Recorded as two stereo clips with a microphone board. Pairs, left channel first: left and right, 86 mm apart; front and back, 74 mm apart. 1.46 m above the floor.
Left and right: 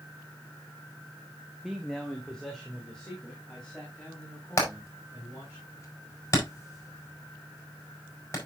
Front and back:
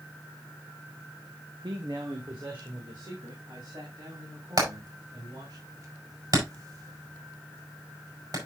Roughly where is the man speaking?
Behind.